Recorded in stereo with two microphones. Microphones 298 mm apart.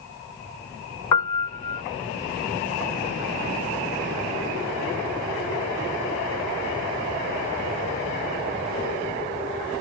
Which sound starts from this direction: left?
A piano, at 1.1 s.